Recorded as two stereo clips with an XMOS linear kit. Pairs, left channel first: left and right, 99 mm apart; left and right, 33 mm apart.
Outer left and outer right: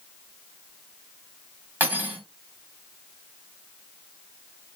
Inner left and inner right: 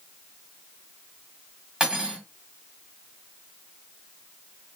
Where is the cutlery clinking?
20° right (ahead or behind), 2.5 m.